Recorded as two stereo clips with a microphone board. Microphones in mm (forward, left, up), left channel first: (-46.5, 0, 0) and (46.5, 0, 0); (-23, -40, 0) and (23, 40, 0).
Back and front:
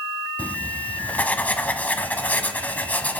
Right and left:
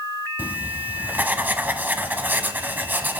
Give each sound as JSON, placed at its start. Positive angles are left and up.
{"t": 0.4, "sound": "writing", "azimuth_deg": 115, "distance_m": 1.0}